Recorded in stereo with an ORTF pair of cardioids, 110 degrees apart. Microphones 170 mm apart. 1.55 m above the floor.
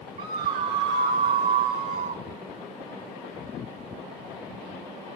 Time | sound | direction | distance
0.2 | a scream | 70° right | 7 m